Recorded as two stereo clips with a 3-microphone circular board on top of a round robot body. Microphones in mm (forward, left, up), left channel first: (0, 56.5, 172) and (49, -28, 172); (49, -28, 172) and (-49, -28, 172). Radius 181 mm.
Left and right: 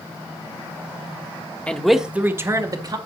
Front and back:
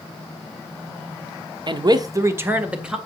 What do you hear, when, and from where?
1.7 s a man speaking: 165° right, 1.5 m; by 3.0 s 95° right, 2.0 m